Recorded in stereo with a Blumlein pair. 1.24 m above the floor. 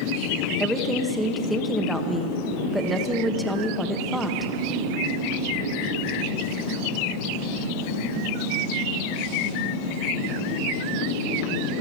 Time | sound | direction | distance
0.6 | a woman speaking | 5° right | 1.3 m